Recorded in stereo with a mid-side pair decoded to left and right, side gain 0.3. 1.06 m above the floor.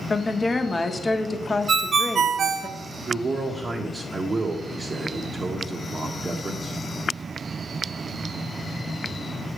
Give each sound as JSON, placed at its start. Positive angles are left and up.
{"t": 0.1, "sound": "a woman speaking", "azimuth_deg": 40, "distance_m": 0.9}
{"t": 1.7, "sound": "a ringtone", "azimuth_deg": -65, "distance_m": 0.5}
{"t": 3.1, "sound": "a man speaking", "azimuth_deg": -45, "distance_m": 0.8}